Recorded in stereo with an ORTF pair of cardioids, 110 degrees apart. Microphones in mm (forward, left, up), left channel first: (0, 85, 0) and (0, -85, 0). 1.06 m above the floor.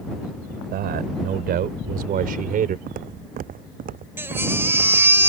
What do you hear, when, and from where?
0.7 s a man speaking: 65° right; by 2.8 s 55° right
2.9 s footsteps: 55° right
4.2 s a baby crying: 15° right